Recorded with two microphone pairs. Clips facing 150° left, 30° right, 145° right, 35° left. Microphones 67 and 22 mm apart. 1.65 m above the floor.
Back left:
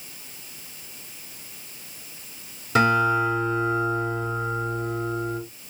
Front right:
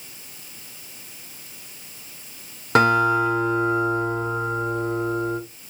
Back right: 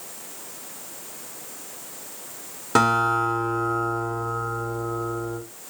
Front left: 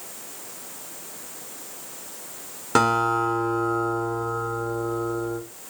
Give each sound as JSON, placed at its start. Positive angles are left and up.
{"t": 2.8, "sound": "a guitar", "azimuth_deg": -55, "distance_m": 2.5}